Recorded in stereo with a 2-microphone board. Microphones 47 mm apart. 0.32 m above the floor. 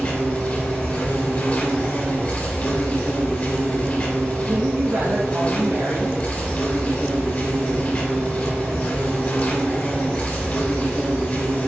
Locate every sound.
0.0 s an insect: 35° left (ahead or behind), 2.5 m
4.5 s a woman speaking: 70° right (ahead or behind), 3 m